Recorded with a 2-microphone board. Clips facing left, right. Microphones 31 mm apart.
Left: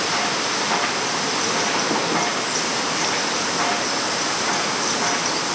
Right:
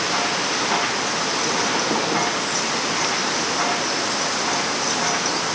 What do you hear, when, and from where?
Only background noise.